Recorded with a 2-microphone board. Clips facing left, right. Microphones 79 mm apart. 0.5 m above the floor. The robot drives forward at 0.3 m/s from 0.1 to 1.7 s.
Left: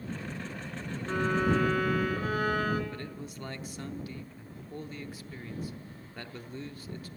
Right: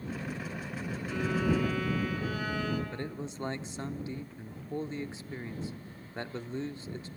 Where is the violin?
50° left (ahead or behind), 1.9 m; by 2.8 s 45° left (ahead or behind), 2.0 m.